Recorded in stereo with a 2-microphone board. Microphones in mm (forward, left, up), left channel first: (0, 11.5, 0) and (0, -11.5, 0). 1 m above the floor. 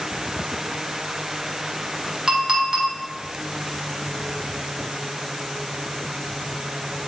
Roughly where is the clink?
Right.